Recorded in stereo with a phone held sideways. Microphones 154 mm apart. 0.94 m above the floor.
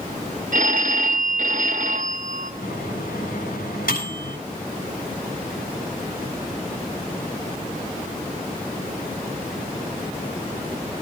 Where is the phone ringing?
55° right (ahead or behind), 1.5 m.